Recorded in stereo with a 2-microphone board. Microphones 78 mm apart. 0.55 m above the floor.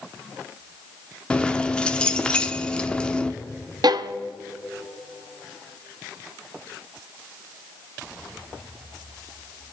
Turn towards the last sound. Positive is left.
turn(degrees=-65)  # may be behind; listen again after turning